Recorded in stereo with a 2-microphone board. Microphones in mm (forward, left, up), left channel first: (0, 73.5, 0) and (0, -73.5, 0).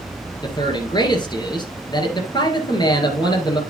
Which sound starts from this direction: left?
A man speaking, at 0.4 s.